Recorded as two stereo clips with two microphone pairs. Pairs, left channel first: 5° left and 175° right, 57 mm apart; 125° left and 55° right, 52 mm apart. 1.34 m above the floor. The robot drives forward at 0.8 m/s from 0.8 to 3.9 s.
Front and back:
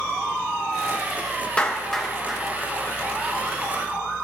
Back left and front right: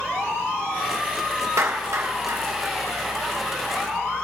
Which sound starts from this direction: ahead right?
A clap, at 1.6 s.